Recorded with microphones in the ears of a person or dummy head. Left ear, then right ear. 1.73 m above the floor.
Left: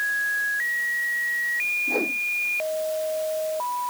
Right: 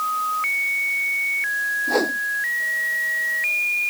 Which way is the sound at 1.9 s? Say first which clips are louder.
Right 3 dB; 30° right (ahead or behind).